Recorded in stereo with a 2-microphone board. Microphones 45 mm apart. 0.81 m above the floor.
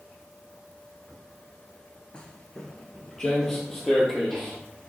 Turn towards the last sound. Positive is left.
turn(degrees=5)  # may be behind; listen again after turning